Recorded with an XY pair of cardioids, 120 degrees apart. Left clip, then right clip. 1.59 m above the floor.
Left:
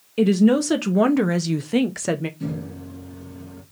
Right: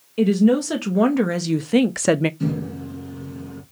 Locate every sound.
0.2 s a woman speaking: 20° left, 1.2 m; by 2.3 s 55° right, 0.5 m
2.4 s a microwave: 30° right, 2.5 m